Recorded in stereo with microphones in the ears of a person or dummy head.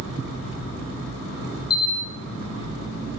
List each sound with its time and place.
1.7 s a camera shutter: 50° left (ahead or behind), 1.2 m